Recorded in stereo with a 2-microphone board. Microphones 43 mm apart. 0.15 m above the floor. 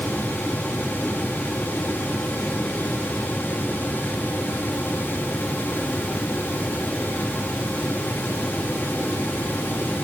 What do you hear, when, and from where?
Only background noise.